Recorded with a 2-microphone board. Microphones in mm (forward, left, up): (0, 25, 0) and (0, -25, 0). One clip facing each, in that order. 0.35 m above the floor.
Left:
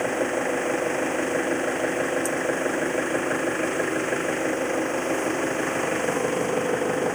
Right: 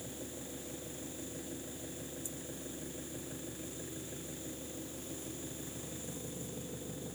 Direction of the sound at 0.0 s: 75° left (ahead or behind).